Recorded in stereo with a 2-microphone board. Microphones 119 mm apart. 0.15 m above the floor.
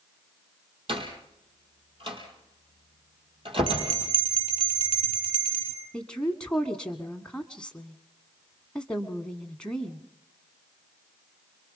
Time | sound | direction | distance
0.9 | a door slam | 50° right (ahead or behind) | 4 m
3.7 | a bell | 50° left (ahead or behind) | 5 m
5.9 | a woman speaking | 10° left (ahead or behind) | 1.4 m